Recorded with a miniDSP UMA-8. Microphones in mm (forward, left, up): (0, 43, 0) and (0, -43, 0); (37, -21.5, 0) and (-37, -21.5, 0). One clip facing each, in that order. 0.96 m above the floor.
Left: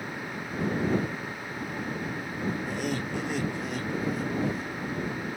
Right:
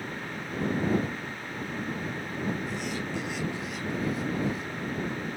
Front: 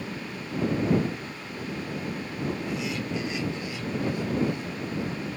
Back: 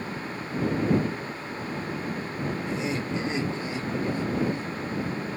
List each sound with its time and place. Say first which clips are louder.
2.7 s laughter: left 2 dB, back 2 dB; 125° left; by 4.7 s 130° left